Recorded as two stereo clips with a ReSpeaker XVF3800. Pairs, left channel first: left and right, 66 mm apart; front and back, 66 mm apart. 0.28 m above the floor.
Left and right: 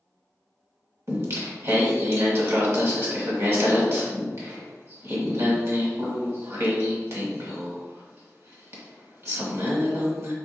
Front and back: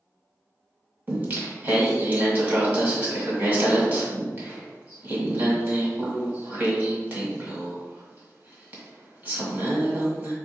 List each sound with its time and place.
1.1 s singing: 120° right, 1.8 m